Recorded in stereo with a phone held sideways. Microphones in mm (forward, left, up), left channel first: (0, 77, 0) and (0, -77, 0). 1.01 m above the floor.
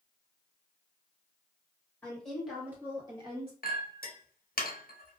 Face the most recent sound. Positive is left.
turn(degrees=70)  # may be behind; listen again after turning